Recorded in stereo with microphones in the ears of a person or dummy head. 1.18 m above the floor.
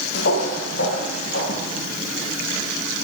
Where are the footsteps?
55° left (ahead or behind), 2 m; by 1.6 s 65° left (ahead or behind), 3 m.